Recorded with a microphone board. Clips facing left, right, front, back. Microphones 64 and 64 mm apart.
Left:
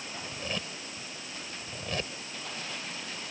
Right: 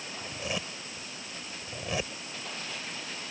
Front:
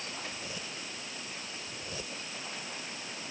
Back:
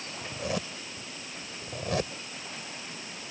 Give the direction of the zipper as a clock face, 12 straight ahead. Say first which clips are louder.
Right 2 dB, back 8 dB; 6 o'clock.